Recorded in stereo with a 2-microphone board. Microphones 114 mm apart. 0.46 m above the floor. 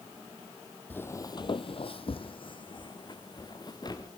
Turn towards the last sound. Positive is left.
turn(degrees=35)  # may be behind; listen again after turning